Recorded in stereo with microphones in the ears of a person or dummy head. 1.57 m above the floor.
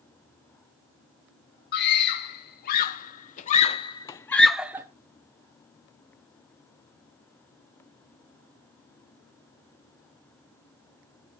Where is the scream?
70° left (ahead or behind), 1.6 m; by 4.9 s 10° right (ahead or behind), 0.6 m.